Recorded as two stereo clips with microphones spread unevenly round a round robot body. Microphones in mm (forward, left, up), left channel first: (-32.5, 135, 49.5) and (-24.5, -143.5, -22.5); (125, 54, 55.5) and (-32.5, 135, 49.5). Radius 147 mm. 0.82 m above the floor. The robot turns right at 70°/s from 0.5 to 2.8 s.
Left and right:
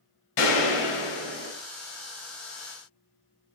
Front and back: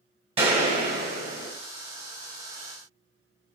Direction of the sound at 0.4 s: 95° left.